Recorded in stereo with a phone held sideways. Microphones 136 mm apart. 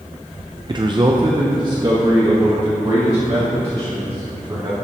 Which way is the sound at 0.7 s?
35° right (ahead or behind).